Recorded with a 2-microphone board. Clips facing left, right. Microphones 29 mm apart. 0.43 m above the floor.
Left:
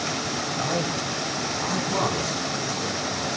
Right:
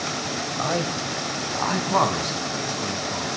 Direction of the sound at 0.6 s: 25° right (ahead or behind).